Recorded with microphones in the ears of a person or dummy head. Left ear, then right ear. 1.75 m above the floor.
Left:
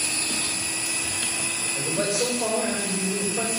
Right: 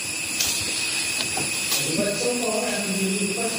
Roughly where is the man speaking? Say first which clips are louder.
Left 1 dB; left.